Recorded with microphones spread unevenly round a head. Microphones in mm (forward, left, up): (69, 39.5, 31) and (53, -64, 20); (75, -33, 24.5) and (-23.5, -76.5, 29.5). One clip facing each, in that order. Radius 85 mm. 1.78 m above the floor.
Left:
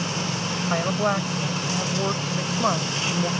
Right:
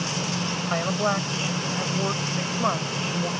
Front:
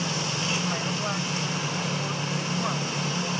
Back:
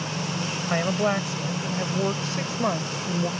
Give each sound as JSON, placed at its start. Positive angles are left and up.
{"t": 0.7, "sound": "a woman speaking", "azimuth_deg": 170}